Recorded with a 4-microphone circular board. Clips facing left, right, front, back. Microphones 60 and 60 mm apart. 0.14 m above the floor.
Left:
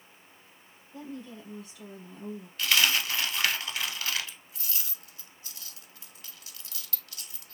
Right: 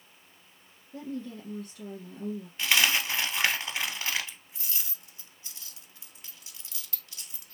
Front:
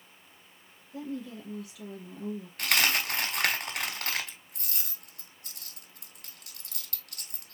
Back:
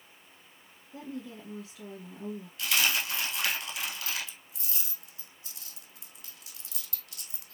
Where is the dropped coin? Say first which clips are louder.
Even, front 2 dB; 25° right, 1.0 m.